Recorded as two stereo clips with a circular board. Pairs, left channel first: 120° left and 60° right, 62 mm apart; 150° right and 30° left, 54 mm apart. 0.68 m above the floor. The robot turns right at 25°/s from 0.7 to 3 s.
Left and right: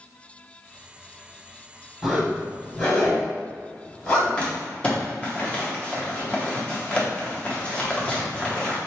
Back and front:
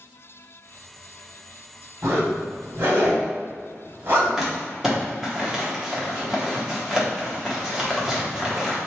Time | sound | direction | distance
2.0 | a zipper | 35° left | 1.8 m
4.4 | crumpling | 95° left | 0.9 m